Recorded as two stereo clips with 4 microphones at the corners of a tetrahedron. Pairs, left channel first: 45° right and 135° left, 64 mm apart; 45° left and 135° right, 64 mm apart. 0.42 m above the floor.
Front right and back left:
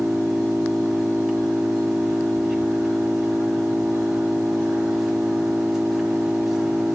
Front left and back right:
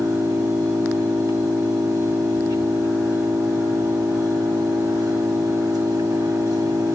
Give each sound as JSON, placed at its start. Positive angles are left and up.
{"t": 0.0, "sound": "an engine running", "azimuth_deg": -145, "distance_m": 1.6}